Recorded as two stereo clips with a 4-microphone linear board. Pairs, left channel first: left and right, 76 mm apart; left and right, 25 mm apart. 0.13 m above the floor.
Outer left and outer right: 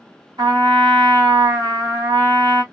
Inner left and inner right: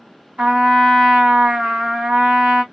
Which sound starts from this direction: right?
A trumpet, at 0.4 s.